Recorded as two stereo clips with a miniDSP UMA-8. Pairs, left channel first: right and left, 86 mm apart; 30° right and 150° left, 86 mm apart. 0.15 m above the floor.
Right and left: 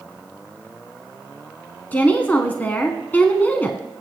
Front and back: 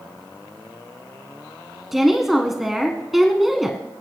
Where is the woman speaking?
125° right, 1.1 m.